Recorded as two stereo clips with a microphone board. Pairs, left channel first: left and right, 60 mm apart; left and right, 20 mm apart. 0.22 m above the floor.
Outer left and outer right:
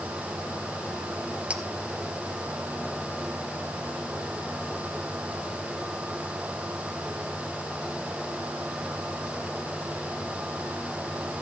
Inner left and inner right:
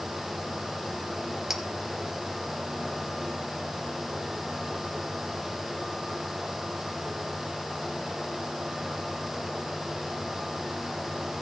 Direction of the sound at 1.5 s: 20° right (ahead or behind).